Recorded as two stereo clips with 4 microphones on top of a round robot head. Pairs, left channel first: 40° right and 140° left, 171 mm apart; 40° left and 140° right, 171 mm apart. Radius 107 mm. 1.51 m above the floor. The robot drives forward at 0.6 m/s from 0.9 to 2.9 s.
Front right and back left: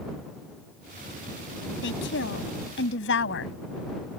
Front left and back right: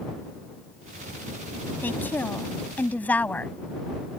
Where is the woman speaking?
40° right.